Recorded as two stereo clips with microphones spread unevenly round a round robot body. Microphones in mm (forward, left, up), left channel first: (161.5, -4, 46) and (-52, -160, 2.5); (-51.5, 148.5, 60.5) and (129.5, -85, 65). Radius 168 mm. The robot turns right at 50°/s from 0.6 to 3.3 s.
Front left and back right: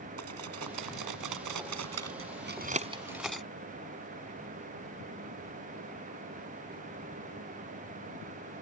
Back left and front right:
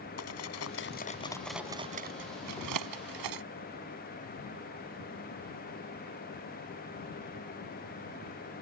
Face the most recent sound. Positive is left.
turn(degrees=-55)